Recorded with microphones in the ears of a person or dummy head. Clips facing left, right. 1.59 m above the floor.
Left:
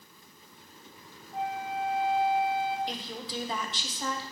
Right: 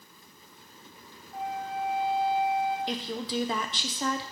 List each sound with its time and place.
1.3 s a flute: 60° left (ahead or behind), 0.8 m
2.9 s a woman speaking: 60° right (ahead or behind), 0.8 m